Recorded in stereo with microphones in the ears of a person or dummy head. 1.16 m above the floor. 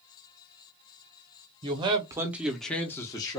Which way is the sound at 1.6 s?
25° right (ahead or behind).